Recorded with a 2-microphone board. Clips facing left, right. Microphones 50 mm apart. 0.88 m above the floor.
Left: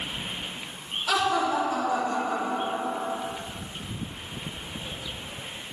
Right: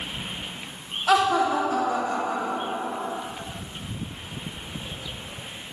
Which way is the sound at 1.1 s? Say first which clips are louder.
Right 4 dB; 40° right (ahead or behind).